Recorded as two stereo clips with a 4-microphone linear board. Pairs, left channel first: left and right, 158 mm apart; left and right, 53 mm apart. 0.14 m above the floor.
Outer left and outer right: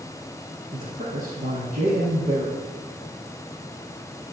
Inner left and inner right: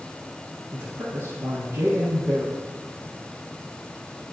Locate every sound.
0.7 s a man speaking: 55° right (ahead or behind), 2.5 m